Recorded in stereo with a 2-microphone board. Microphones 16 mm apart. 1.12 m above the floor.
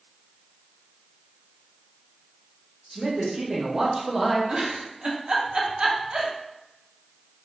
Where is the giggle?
75° right (ahead or behind), 0.5 m.